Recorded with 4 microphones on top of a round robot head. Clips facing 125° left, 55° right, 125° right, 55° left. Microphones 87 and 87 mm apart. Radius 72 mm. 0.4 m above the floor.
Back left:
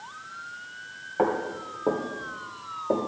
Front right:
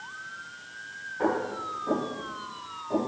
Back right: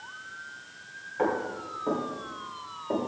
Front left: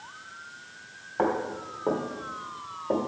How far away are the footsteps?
About 5 m.